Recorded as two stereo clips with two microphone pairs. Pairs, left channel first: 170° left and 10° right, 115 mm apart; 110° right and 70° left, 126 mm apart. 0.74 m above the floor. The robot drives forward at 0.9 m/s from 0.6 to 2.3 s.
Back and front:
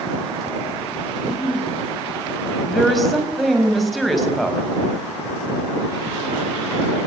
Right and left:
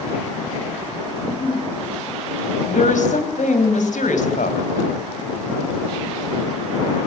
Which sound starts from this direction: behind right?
A giggle, at 1.2 s.